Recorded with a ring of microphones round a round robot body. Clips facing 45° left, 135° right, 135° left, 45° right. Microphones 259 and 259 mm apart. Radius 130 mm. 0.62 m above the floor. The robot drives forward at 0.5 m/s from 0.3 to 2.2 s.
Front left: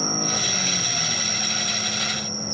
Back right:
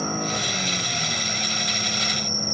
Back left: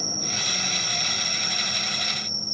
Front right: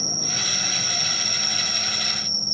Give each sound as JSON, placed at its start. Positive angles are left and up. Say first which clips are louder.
{"t": 0.0, "sound": "an insect", "louder": "back right 1 dB, front right 1 dB", "azimuth_deg": -15}